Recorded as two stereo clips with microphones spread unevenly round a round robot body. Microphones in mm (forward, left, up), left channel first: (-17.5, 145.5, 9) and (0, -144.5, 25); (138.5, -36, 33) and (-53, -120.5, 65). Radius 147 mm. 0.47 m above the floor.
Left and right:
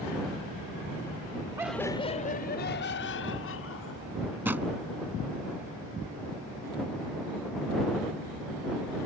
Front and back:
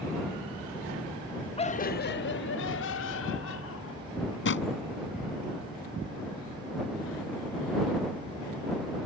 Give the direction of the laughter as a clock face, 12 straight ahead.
12 o'clock.